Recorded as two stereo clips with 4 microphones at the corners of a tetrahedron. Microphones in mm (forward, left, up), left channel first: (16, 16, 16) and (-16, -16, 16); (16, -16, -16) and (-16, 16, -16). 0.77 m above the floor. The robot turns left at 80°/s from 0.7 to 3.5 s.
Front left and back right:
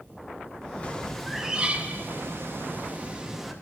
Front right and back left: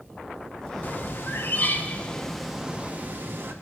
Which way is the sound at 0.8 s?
10° right.